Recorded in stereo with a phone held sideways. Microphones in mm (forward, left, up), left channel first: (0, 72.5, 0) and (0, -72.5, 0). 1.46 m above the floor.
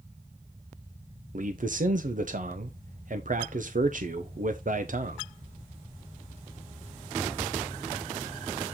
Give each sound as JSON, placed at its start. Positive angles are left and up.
{"t": 1.3, "sound": "a man speaking", "side_deg": -65, "distance_m": 0.8}